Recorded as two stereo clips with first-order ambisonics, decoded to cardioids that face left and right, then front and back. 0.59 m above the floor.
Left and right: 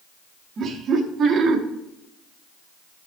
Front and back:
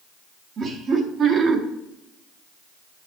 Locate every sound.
0.6 s laughter: 140° right, 0.9 m